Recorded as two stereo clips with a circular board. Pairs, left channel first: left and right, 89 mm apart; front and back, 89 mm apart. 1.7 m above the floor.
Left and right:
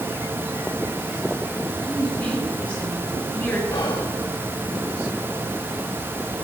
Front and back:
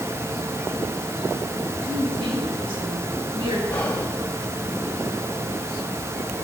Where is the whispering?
70° left, 0.9 m.